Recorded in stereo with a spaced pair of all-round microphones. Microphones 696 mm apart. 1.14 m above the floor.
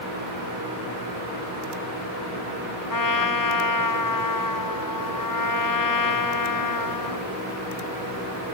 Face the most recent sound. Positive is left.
turn(degrees=30)  # may be behind; listen again after turning